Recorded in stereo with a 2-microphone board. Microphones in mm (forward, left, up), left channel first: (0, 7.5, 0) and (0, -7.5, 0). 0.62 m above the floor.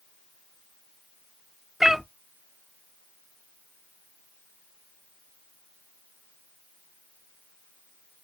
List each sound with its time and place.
1.8 s a cat meowing: 30° right (ahead or behind), 0.6 m